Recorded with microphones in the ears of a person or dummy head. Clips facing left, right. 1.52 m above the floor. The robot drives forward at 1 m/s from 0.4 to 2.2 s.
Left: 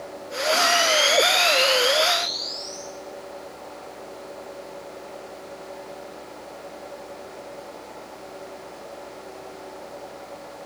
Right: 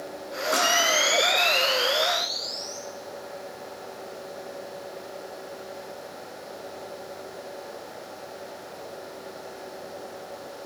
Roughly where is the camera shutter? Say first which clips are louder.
Left 3 dB; right.